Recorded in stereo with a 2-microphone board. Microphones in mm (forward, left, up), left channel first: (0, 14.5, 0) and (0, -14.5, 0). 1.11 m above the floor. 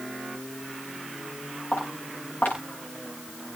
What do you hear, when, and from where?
1.7 s footsteps: 80° left, 8.5 m